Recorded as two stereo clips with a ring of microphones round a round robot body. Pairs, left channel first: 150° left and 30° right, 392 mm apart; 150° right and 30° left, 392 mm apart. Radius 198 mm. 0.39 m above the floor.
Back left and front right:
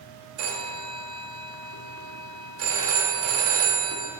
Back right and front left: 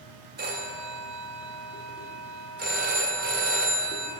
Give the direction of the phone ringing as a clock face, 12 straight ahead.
1 o'clock.